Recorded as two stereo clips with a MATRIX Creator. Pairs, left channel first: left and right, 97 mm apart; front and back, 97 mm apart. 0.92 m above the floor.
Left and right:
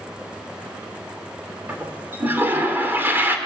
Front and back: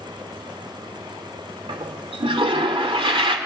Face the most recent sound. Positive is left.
turn(degrees=-155)